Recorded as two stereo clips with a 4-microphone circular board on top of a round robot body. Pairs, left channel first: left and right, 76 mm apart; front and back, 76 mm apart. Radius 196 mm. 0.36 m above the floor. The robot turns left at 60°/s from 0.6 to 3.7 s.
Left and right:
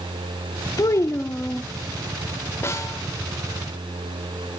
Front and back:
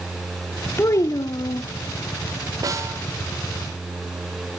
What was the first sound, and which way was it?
A child speaking, 55° left.